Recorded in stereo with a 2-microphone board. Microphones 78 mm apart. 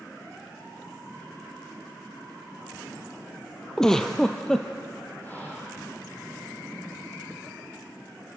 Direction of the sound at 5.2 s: 25° left (ahead or behind).